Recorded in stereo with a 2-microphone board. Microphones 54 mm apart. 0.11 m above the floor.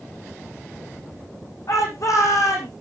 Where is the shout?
75° left (ahead or behind), 6 m.